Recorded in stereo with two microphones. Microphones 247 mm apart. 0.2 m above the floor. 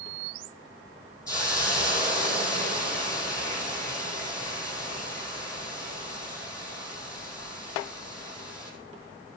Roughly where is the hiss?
Centre.